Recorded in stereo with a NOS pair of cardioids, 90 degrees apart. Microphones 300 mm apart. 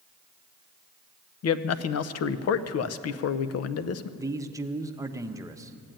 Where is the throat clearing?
No throat clearing in this recording.